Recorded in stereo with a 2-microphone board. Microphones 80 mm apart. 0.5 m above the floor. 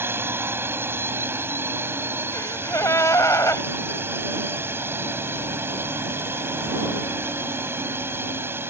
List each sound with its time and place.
0.0 s a drone: 30° right (ahead or behind)
2.3 s a gasp: 40° left (ahead or behind)